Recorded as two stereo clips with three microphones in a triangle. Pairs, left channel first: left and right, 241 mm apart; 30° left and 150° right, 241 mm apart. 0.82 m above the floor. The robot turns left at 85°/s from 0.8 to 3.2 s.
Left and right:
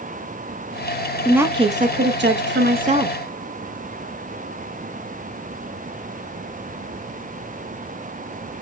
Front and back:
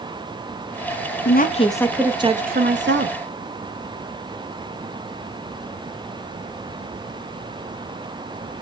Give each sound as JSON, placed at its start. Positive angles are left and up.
{"t": 1.2, "sound": "a woman speaking", "azimuth_deg": 0, "distance_m": 0.6}